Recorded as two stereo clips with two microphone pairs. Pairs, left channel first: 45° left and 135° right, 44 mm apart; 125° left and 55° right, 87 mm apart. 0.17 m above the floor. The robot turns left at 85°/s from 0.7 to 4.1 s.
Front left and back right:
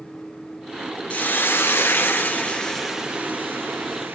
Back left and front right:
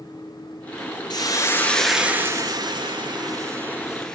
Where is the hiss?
100° left, 2.5 m; by 4.2 s 155° right, 2.5 m.